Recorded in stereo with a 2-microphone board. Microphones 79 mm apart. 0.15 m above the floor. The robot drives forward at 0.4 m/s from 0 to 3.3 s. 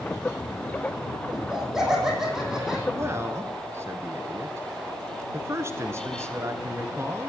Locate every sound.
1.3 s laughter: 10° right (ahead or behind), 5 m; by 2.8 s 5° right (ahead or behind), 5.5 m
2.9 s a man speaking: 30° right (ahead or behind), 1.6 m; by 7.3 s 35° right (ahead or behind), 1.5 m